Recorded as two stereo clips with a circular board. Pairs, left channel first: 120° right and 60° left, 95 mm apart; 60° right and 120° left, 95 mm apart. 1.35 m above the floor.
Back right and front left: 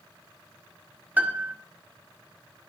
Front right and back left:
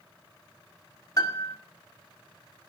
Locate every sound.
1.2 s a piano: 10° right, 1.7 m